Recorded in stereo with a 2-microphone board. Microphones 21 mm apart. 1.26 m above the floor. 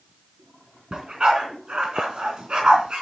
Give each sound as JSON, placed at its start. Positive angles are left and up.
{"t": 0.9, "sound": "a dog barking", "side_deg": -45, "distance_m": 3.5}